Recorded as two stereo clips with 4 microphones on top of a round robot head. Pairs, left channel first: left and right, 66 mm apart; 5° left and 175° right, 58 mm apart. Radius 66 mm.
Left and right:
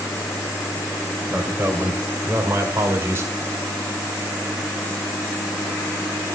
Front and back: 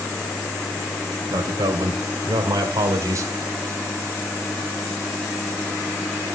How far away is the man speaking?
About 3 m.